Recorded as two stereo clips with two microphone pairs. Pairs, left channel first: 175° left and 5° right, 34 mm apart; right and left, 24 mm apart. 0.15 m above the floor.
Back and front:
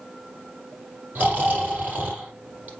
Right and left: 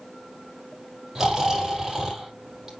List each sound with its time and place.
1.1 s snoring: 20° left, 5 m